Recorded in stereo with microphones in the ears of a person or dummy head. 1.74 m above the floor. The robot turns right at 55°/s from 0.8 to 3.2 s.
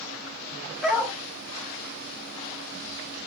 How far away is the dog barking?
About 3 m.